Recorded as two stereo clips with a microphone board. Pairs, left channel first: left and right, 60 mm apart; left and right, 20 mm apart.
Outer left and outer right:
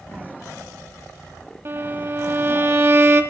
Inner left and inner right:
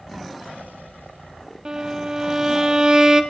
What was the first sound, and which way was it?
A violin, 45° right (ahead or behind).